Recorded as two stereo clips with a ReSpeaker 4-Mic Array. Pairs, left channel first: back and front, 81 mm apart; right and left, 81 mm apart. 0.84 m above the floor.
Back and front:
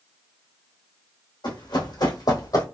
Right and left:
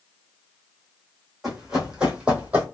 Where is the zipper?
No zipper in this recording.